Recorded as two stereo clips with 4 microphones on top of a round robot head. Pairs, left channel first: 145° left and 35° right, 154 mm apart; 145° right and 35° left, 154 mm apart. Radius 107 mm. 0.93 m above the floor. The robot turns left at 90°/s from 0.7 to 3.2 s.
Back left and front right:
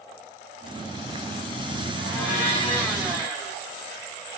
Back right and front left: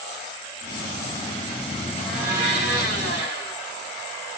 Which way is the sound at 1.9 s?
145° left.